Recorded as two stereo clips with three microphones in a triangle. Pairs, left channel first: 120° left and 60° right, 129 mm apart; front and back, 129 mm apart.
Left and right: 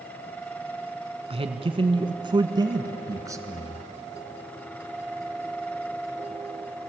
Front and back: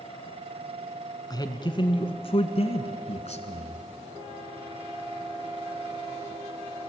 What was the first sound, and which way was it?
A man speaking, 50° right.